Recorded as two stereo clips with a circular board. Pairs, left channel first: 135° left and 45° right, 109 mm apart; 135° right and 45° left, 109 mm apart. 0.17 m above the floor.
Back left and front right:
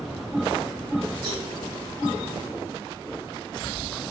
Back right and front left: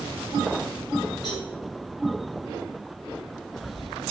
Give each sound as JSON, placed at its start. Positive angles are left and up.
{"t": 1.2, "sound": "a cowbell", "azimuth_deg": 0, "distance_m": 4.0}